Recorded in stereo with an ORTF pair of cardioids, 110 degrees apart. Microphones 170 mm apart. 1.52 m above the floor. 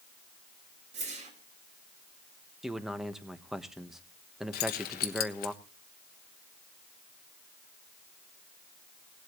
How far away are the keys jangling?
About 1.2 m.